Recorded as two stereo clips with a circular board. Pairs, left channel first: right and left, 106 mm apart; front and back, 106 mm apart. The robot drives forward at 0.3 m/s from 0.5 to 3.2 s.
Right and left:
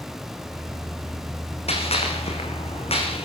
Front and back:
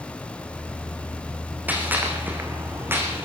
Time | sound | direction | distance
1.7 | a gunshot | 105° right | 5 m